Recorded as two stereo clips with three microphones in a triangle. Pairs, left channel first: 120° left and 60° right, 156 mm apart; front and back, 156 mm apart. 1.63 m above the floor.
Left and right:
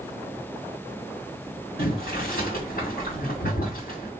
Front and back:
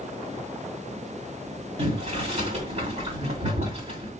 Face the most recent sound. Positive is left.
turn(degrees=135)